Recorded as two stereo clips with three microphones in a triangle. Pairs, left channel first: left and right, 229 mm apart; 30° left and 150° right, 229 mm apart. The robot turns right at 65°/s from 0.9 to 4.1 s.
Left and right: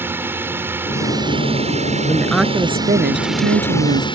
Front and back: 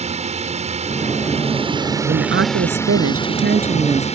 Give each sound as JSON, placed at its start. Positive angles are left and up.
{"t": 0.0, "sound": "a drone", "azimuth_deg": -160}
{"t": 2.1, "sound": "a woman speaking", "azimuth_deg": 160}